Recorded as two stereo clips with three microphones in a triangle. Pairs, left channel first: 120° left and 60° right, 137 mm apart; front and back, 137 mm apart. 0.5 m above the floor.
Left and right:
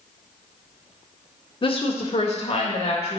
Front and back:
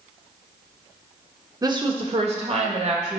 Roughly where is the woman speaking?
Behind left.